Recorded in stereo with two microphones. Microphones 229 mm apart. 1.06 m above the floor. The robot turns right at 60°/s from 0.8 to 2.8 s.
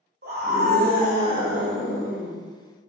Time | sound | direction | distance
0.2 | a scream | 55° right | 0.9 m